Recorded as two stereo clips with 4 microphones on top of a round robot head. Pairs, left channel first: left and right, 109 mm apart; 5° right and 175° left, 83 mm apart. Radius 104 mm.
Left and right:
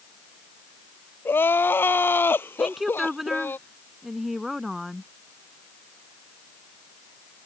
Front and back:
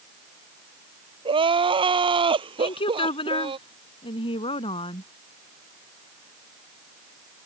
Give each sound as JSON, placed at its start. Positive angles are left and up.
{"t": 1.2, "sound": "crying", "azimuth_deg": 160}
{"t": 2.6, "sound": "a woman speaking", "azimuth_deg": 0}